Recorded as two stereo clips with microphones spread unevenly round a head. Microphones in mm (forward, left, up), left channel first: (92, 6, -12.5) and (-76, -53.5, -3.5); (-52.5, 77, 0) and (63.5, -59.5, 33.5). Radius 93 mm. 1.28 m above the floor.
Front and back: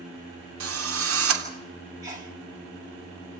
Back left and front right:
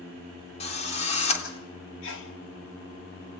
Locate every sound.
0.6 s a drill: 170° right, 3 m
2.0 s a sneeze: 125° left, 3.5 m